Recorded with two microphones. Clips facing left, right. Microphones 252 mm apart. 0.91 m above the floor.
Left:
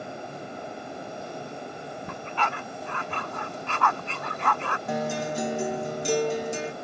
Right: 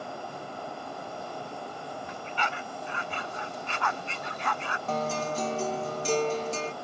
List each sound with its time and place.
2.1 s a dog barking: 70° left (ahead or behind)
4.9 s a guitar: 15° left (ahead or behind)